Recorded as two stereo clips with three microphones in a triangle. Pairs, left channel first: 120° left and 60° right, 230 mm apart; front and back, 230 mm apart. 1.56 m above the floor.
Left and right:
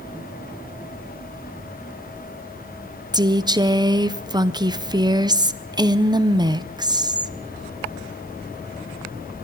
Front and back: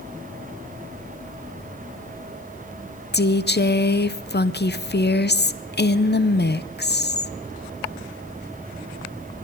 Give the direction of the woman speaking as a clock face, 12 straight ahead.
12 o'clock.